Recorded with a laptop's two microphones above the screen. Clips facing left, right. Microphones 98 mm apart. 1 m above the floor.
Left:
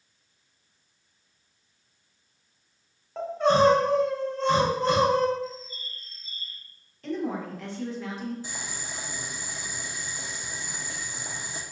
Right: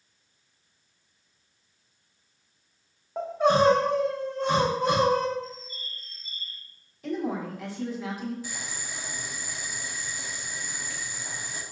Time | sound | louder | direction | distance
3.2 | crying | left 1 dB | 10° right (ahead or behind) | 0.8 m
5.4 | a bird | left 4 dB | 5° left (ahead or behind) | 0.9 m
7.0 | a woman speaking | even | 10° right (ahead or behind) | 0.9 m
8.4 | boiling | even | 30° left (ahead or behind) | 0.6 m